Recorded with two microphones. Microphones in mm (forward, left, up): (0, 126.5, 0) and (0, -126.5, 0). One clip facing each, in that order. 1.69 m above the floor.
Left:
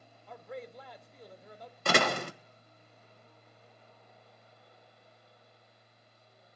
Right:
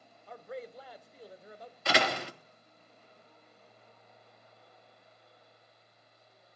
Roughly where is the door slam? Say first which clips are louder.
Left 2 dB; left.